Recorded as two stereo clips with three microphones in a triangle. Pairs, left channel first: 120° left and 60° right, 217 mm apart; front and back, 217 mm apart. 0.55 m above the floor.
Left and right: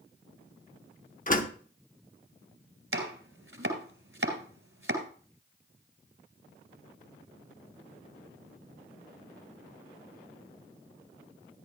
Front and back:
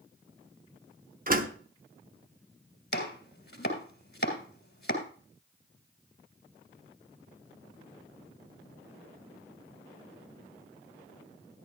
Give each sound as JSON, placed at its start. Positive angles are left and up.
{"t": 1.3, "sound": "a door slam", "azimuth_deg": 155, "distance_m": 0.8}
{"t": 2.9, "sound": "chopping", "azimuth_deg": -40, "distance_m": 2.5}